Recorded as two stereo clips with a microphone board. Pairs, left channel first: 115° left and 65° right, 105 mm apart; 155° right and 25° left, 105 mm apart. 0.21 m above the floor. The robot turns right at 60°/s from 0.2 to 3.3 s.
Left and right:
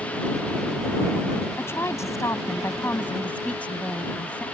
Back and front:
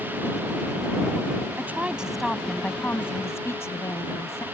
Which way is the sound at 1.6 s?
70° left.